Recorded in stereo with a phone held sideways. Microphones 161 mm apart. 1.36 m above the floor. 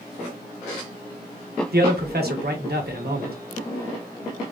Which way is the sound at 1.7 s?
80° right.